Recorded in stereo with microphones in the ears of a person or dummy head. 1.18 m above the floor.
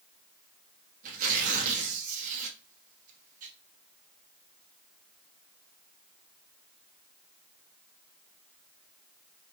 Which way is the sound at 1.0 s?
45° right (ahead or behind).